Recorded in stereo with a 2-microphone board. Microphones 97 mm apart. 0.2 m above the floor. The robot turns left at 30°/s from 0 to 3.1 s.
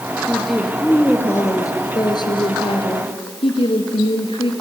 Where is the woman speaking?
175° right, 3 m; by 4.5 s 100° left, 3 m.